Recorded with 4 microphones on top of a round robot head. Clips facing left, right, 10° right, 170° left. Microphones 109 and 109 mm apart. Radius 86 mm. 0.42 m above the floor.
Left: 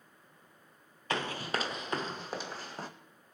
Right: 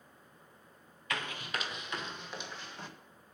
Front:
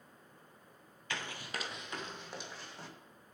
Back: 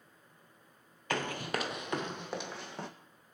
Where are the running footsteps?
140° left, 0.6 m; by 2.9 s 145° left, 1.6 m.